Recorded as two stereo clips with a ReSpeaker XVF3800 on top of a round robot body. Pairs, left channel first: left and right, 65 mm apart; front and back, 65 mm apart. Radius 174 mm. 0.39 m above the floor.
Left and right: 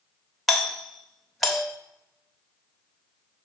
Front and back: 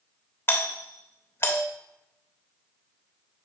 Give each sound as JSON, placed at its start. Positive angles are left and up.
{"t": 0.5, "sound": "a doorbell", "azimuth_deg": 0, "distance_m": 1.4}